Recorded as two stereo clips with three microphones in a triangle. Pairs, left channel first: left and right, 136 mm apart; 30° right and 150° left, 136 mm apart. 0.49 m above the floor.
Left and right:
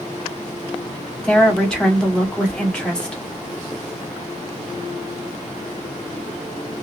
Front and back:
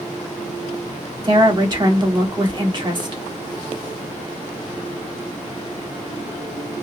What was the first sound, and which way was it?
A woman speaking, 170° left.